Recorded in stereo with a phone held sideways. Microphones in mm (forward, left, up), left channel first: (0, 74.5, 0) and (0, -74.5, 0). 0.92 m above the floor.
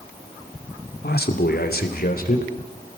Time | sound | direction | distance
1.0 | a man speaking | 75° left (ahead or behind) | 2.5 m